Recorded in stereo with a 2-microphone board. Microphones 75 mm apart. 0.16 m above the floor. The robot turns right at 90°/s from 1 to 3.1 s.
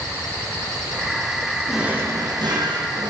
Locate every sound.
1.7 s a drawer: straight behind, 4.5 m; by 3.1 s 55° right, 4.5 m